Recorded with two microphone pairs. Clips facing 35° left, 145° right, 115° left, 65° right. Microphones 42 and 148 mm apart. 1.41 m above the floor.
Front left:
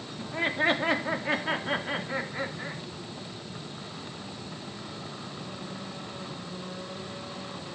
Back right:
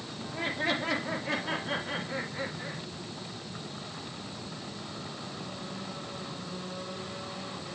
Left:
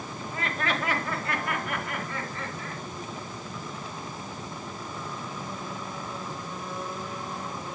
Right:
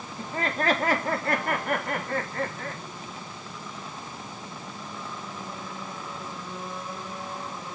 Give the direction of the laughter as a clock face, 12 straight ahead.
12 o'clock.